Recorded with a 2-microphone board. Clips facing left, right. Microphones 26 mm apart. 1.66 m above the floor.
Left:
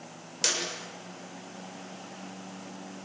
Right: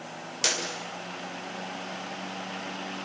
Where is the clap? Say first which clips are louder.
Right 2 dB; 5° right (ahead or behind), 6.5 m.